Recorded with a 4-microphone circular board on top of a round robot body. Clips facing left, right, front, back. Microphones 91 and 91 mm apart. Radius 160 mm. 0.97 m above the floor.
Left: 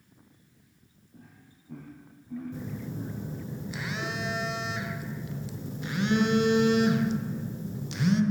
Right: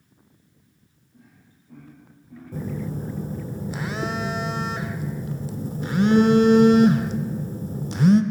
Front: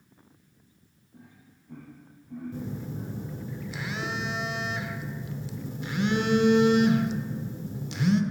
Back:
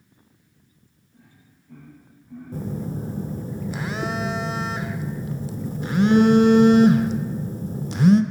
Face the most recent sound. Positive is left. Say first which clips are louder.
# right 6 dB, back 10 dB
turn(degrees=-135)